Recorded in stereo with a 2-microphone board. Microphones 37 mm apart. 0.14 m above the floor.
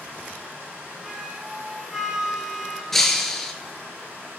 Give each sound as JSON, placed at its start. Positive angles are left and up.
{"t": 0.0, "sound": "running water", "side_deg": -55, "distance_m": 4.0}
{"t": 1.0, "sound": "a flute", "side_deg": -15, "distance_m": 0.8}
{"t": 2.9, "sound": "breaking glass", "side_deg": 5, "distance_m": 0.7}